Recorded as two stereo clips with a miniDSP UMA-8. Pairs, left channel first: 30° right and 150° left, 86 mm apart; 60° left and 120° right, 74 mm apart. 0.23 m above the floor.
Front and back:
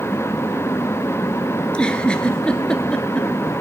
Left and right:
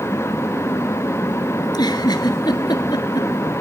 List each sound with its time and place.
1.6 s a giggle: 50° left, 1.4 m